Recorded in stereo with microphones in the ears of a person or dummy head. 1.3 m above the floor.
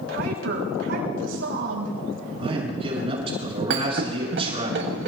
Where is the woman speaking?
85° right, 6 m.